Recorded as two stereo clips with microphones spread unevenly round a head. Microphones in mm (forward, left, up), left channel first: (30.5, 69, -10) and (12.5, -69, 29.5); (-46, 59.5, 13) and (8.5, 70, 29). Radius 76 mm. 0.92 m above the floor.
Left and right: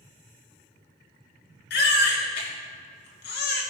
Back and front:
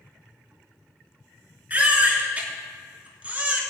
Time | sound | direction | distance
1.7 | a baby crying | 75° left | 5 m